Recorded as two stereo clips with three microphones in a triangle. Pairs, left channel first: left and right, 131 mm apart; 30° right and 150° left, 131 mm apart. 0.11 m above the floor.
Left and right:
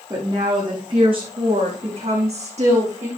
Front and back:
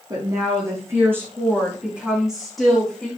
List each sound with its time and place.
0.1 s a woman speaking: 150° right, 5.5 m; by 3.1 s 115° right, 5.5 m